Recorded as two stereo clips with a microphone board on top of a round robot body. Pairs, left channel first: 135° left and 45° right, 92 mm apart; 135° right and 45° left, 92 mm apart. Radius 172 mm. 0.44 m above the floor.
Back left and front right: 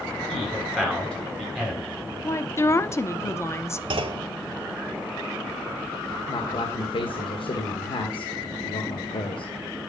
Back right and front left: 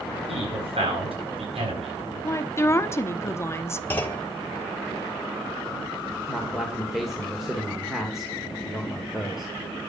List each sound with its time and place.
0.3 s a man speaking: 55° left, 7.5 m
2.2 s a woman speaking: straight behind, 1.3 m
3.9 s a clunk: 65° right, 1.3 m
6.3 s a man speaking: 130° left, 2 m